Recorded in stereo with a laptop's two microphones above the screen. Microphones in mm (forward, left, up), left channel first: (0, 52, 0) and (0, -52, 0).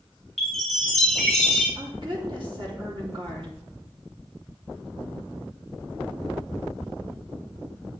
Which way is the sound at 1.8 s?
55° right (ahead or behind).